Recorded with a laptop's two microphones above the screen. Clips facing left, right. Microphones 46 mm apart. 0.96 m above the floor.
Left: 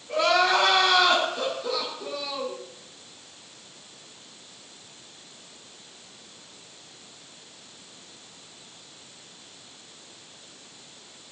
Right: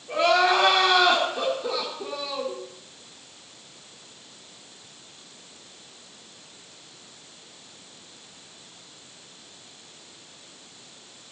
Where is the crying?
25° right (ahead or behind), 3 m.